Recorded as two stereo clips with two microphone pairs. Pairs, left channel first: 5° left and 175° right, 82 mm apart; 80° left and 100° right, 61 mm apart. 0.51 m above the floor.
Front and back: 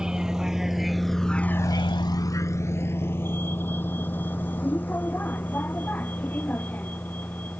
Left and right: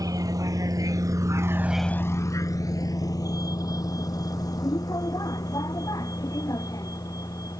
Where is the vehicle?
95° right; by 7.6 s 75° left.